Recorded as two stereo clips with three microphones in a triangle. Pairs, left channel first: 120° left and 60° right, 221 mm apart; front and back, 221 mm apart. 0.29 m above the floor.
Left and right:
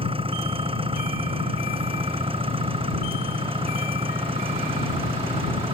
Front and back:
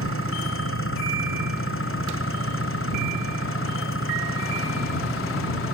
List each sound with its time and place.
0.0 s an engine running: 5° left